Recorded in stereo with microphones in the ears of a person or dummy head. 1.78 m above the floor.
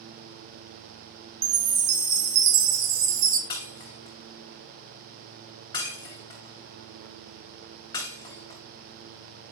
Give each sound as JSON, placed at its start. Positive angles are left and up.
{"t": 1.4, "sound": "a chime", "side_deg": -65, "distance_m": 1.3}
{"t": 3.5, "sound": "breaking glass", "side_deg": 20, "distance_m": 3.0}